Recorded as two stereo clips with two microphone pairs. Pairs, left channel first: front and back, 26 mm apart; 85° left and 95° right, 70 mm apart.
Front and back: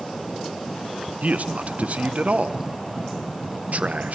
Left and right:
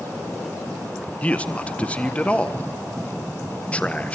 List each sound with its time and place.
1.2 s a man speaking: 155° left, 1.4 m